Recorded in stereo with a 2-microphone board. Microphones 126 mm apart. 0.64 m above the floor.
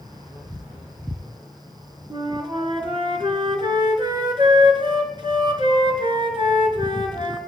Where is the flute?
40° right (ahead or behind), 3 m.